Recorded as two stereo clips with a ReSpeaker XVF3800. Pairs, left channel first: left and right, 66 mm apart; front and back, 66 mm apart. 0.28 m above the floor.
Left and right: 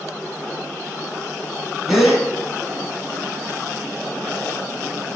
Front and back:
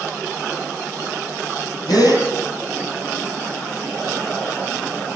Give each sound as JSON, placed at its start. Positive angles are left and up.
{"t": 1.9, "sound": "a gasp", "azimuth_deg": -5, "distance_m": 4.0}